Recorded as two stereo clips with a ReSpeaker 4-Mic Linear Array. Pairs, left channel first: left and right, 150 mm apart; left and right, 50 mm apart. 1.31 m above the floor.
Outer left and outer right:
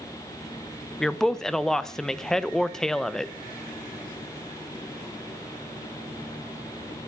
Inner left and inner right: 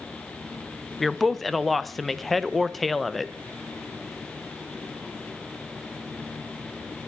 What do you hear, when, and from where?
1.0 s a woman speaking: 5° left (ahead or behind), 0.8 m